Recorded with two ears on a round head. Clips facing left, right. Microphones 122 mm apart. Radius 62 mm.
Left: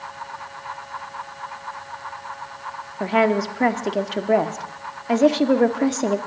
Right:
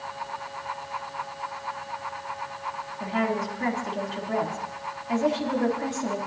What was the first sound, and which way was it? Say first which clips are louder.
A woman speaking: left 8 dB; 70° left (ahead or behind).